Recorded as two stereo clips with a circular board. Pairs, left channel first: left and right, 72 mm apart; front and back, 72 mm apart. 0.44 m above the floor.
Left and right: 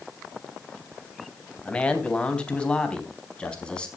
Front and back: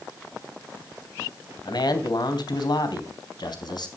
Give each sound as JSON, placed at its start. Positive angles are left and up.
{"t": 1.6, "sound": "a man speaking", "azimuth_deg": 15, "distance_m": 3.0}